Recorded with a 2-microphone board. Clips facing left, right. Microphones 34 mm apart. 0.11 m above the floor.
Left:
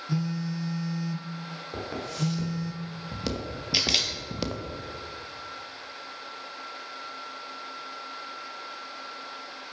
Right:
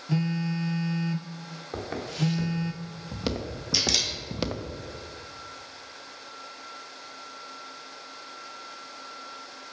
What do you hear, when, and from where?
0.1 s a phone buzzing: 45° right (ahead or behind), 0.6 m
1.7 s footsteps: 25° right (ahead or behind), 2.5 m; by 4.7 s 15° right (ahead or behind), 0.8 m
3.7 s a camera shutter: 30° left (ahead or behind), 1.2 m